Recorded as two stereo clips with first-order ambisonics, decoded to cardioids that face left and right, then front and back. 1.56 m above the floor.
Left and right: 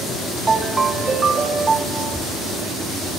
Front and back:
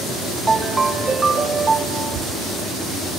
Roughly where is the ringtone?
Behind right.